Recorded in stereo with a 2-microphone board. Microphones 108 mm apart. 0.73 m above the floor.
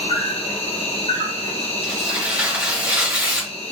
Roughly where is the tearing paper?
Centre.